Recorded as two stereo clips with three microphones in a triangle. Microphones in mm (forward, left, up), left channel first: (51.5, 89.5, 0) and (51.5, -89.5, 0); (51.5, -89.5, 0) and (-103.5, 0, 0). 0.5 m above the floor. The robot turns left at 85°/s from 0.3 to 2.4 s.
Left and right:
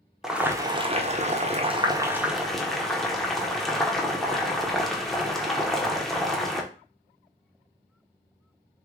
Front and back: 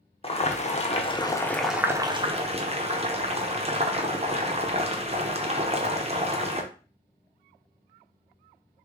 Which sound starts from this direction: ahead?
Boiling, at 0.2 s.